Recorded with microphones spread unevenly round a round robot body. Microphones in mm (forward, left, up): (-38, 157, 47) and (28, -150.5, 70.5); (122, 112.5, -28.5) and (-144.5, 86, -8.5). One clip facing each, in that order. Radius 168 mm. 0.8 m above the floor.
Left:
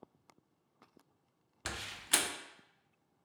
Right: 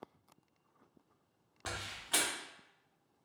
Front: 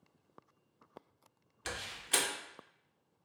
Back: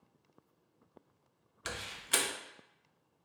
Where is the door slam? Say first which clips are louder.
Left 1 dB, even; 105° left, 0.6 m.